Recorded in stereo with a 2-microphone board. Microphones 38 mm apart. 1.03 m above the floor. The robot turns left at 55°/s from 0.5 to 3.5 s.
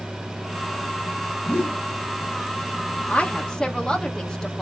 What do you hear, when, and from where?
1.5 s a whoosh: 70° left (ahead or behind), 1.1 m; by 1.8 s 60° left (ahead or behind), 1.1 m
3.1 s a woman speaking: 40° left (ahead or behind), 1.1 m; by 4.6 s 20° left (ahead or behind), 1.1 m